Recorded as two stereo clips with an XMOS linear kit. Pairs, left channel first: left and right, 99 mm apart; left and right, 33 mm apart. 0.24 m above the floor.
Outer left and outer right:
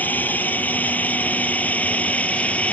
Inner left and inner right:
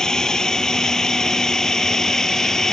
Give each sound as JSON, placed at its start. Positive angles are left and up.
{"t": 0.0, "sound": "a drone", "side_deg": 15}